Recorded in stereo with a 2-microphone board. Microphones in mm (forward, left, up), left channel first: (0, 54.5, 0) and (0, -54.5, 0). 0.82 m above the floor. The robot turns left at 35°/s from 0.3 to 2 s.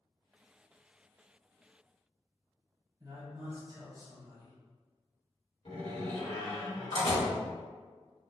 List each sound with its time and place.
3.0 s a man speaking: 35° right (ahead or behind), 1.2 m
5.7 s a door slam: 60° left (ahead or behind), 1.4 m